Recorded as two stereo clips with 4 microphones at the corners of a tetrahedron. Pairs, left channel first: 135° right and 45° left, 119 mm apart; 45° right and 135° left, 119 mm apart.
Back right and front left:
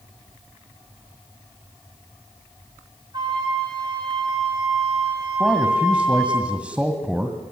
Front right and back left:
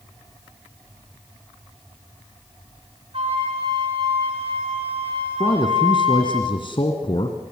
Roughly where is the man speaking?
Ahead right.